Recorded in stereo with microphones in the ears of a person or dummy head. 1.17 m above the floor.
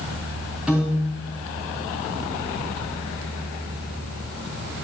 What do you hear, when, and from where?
0.7 s a piano: 5° right (ahead or behind), 5 m